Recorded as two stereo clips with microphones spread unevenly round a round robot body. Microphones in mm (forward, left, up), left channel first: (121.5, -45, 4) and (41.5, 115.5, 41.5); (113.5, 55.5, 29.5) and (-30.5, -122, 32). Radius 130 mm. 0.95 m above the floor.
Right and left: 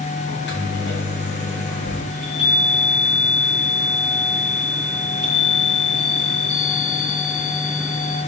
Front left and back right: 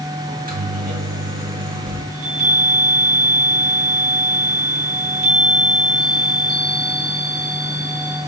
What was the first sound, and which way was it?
A microwave, 80° right.